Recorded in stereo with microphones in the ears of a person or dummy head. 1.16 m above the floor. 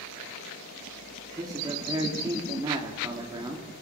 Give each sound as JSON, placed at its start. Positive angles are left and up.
{"t": 1.4, "sound": "a man speaking", "side_deg": -20, "distance_m": 3.5}